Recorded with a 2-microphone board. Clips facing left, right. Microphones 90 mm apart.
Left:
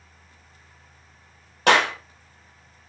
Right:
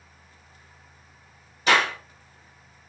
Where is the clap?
70° left (ahead or behind), 2.5 m.